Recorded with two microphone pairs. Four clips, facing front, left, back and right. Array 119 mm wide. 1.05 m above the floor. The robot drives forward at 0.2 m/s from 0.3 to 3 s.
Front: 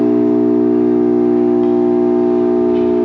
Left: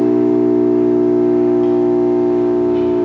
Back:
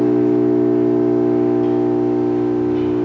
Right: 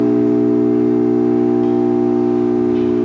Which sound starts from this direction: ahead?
An engine running, at 0.0 s.